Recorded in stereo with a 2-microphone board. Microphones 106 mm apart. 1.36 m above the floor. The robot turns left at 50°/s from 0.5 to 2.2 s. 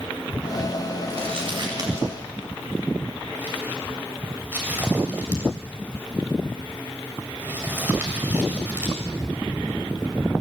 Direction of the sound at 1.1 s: 70° right (ahead or behind).